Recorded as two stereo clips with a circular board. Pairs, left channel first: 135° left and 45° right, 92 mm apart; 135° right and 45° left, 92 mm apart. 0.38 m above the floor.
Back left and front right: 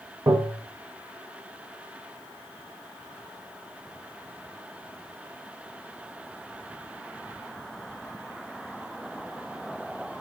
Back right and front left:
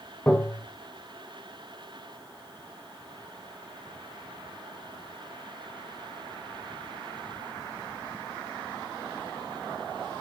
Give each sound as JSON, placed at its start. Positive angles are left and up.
{"t": 0.3, "sound": "tapping", "azimuth_deg": -70, "distance_m": 1.2}